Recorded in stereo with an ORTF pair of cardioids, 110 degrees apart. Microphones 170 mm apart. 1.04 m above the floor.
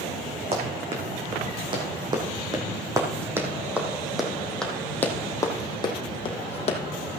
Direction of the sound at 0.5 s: 35° right.